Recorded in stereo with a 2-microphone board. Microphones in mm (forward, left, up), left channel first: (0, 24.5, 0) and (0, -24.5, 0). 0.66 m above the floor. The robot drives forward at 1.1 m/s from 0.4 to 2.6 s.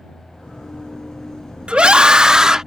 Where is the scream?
25° right (ahead or behind); by 2.6 s 15° right (ahead or behind).